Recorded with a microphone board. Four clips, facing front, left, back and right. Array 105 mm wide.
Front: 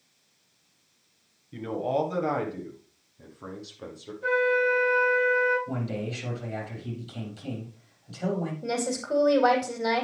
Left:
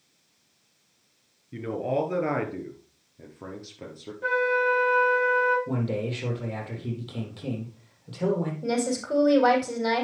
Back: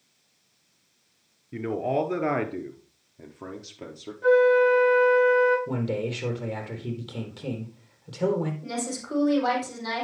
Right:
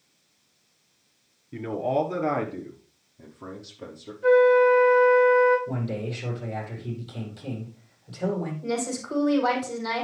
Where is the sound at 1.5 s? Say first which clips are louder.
Right 2 dB, back 1 dB; 175° right, 1.6 m; by 4.1 s 145° left, 2.5 m.